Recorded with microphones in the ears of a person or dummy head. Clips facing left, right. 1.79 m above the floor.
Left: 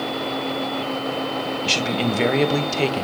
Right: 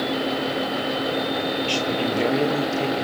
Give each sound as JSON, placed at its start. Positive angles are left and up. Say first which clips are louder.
{"t": 1.6, "sound": "a man speaking", "louder": "left 1 dB", "side_deg": 30, "distance_m": 1.6}